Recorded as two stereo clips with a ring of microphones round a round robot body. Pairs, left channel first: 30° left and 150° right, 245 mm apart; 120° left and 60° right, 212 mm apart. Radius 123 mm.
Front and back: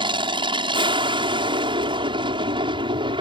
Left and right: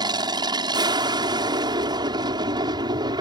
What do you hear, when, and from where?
0.0 s an aircraft: 105° right